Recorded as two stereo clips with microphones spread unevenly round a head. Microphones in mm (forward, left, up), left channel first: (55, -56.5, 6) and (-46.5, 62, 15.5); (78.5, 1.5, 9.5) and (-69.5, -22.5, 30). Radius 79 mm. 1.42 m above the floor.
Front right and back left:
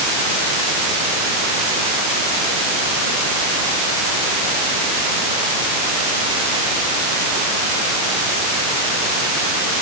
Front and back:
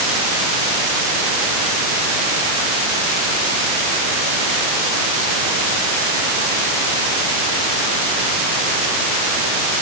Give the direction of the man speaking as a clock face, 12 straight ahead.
No man speaking in this recording.